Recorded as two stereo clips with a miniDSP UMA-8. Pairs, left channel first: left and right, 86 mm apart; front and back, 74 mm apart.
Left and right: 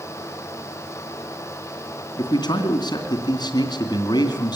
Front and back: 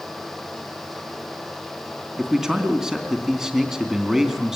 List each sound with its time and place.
2.2 s a man speaking: 95° left, 2.5 m